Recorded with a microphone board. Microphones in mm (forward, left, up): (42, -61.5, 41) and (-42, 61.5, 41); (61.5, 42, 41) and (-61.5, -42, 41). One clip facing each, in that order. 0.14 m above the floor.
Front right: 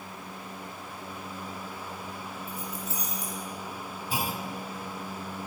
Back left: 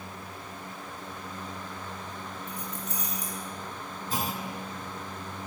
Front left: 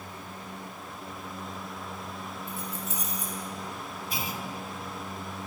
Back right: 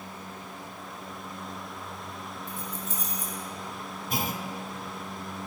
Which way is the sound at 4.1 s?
130° right.